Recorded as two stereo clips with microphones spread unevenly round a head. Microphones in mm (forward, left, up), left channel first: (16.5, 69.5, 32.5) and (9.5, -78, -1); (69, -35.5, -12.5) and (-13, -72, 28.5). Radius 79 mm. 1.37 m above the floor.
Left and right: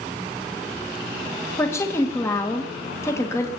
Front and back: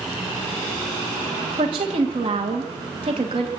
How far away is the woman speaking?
About 1.9 m.